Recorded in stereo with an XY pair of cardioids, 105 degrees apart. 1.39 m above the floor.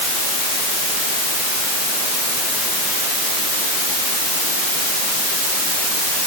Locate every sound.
Only background noise.